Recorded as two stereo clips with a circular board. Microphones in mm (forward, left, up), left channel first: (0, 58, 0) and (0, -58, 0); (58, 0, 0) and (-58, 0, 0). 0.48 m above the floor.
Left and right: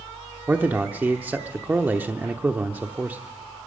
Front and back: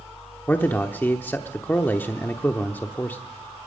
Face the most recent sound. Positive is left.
turn(degrees=-40)